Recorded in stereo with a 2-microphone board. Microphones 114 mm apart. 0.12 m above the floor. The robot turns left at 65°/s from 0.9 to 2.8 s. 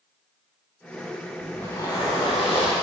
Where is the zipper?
175° left, 3.5 m; by 2.7 s 90° left, 3.5 m.